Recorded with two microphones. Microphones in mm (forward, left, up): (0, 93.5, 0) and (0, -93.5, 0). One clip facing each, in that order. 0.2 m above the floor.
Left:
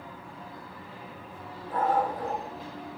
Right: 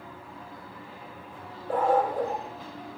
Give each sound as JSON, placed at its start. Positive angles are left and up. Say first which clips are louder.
{"t": 1.7, "sound": "a dog barking", "louder": "right 3 dB", "side_deg": -70, "distance_m": 3.0}